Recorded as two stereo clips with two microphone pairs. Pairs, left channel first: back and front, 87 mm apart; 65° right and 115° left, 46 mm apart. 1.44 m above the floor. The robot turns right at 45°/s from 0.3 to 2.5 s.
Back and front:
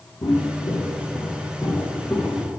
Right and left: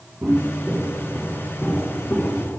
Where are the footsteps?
160° left, 2.5 m; by 2.6 s 75° right, 3.5 m.